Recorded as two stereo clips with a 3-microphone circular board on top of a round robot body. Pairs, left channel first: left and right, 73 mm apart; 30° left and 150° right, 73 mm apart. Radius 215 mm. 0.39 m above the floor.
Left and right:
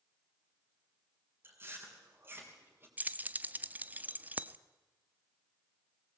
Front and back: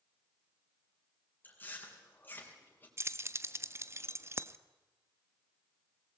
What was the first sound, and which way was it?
Chewing, 30° right.